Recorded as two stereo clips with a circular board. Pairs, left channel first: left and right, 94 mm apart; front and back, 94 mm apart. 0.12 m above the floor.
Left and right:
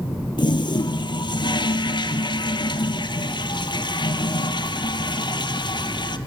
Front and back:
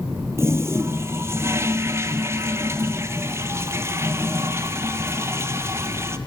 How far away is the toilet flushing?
About 1.0 m.